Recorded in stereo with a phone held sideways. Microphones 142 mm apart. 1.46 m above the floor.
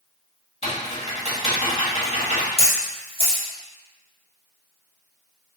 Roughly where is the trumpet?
I don't hear a trumpet.